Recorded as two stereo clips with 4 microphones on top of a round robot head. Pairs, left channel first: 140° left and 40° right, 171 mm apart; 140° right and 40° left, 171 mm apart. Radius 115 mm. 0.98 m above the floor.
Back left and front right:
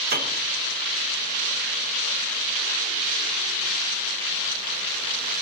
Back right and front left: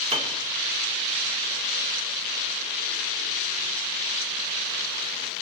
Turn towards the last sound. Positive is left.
turn(degrees=-15)